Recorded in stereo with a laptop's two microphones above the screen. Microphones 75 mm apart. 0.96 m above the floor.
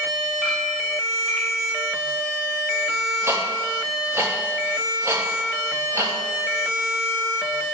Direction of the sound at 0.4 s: Centre (ahead or behind).